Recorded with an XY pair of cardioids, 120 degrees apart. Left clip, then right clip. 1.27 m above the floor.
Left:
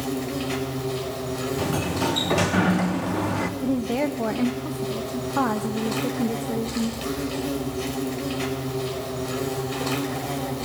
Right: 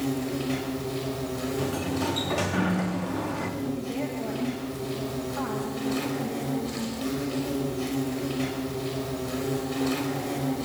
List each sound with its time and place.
0.0 s an insect: 30° left, 6 m
1.6 s a sliding door: 35° left, 1.6 m
3.6 s a woman speaking: 60° left, 1.1 m